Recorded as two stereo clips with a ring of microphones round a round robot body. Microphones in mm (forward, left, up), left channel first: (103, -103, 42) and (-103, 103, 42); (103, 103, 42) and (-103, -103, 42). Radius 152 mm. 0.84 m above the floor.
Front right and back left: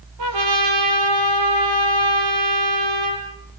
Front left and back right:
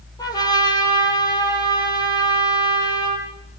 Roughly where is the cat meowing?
I don't hear a cat meowing.